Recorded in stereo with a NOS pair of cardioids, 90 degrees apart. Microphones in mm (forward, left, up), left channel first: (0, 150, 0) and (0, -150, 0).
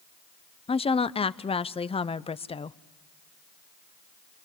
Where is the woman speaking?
20° left, 0.7 m.